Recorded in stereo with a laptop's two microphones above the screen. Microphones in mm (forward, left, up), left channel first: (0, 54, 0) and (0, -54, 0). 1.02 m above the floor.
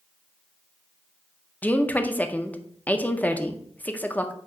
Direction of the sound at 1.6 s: 15° left (ahead or behind).